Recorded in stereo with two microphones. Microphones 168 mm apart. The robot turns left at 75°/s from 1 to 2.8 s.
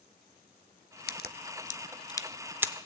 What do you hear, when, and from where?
1.1 s a crack: 70° left (ahead or behind), 0.6 m; by 2.7 s 20° right (ahead or behind), 0.6 m